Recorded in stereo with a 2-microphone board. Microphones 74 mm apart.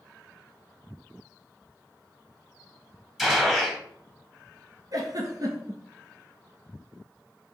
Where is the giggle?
55° right (ahead or behind), 1.0 m.